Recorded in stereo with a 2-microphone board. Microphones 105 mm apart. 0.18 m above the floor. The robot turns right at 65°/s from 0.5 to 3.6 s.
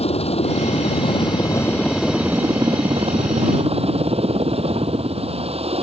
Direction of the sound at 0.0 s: 80° left.